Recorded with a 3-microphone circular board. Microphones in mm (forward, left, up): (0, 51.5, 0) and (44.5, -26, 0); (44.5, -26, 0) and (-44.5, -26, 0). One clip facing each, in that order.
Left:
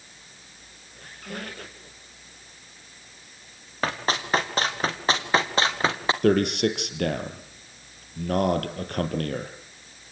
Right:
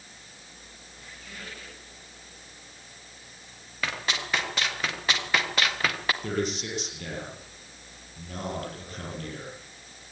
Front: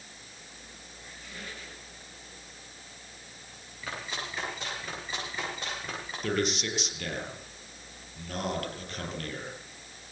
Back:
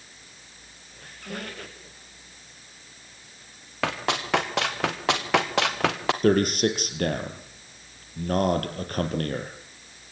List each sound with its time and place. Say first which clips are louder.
1.0 s a squeak: left 8 dB, back 10 dB; 155° left, 7 m
3.8 s running footsteps: left 5 dB, back 11 dB; 170° left, 5.5 m; by 6.1 s 175° right, 3 m
6.2 s a man speaking: left 14 dB, back 9 dB; 145° left, 4.5 m